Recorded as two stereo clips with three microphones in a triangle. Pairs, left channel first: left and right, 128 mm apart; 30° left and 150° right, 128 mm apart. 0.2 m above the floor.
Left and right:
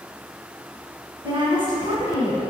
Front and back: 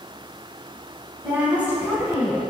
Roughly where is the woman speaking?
Right.